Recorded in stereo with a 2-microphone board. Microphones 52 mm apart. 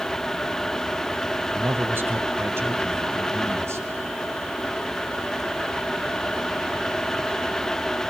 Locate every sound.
1.6 s a man speaking: 40° right (ahead or behind), 1.7 m; by 4.1 s 55° right (ahead or behind), 3.5 m